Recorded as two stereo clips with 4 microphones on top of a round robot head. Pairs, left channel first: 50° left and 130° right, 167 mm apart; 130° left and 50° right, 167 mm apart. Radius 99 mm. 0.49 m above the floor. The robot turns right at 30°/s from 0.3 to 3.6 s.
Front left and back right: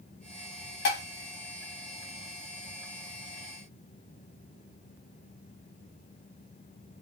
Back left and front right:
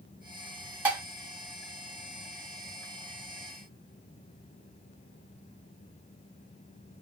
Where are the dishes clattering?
30° left, 1.4 m; by 1.0 s 35° left, 1.4 m.